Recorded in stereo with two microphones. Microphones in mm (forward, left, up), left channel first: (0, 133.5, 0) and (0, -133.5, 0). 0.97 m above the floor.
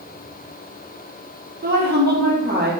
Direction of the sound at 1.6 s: 35° right (ahead or behind).